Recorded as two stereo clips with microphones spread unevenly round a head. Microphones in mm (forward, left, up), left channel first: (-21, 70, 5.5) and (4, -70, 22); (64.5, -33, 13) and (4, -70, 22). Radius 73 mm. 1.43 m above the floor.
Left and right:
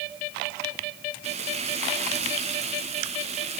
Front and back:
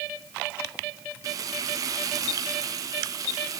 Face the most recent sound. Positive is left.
turn(degrees=-120)